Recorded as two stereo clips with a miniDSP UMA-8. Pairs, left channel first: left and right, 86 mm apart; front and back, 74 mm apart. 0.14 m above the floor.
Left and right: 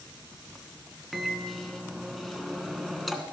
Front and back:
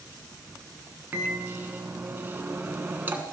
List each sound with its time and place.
1.1 s a microwave: 175° left, 1.2 m